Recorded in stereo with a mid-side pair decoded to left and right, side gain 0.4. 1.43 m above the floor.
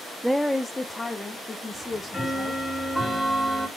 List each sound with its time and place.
0.2 s a woman speaking: 10° right, 0.5 m; by 2.6 s 35° left, 2.5 m
1.7 s ticking: 5° left, 3 m